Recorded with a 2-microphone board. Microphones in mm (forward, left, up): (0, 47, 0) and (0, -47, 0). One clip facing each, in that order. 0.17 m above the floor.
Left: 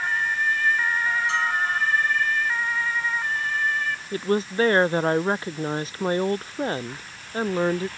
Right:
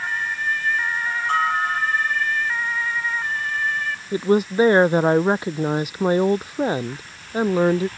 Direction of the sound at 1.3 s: 50° right (ahead or behind).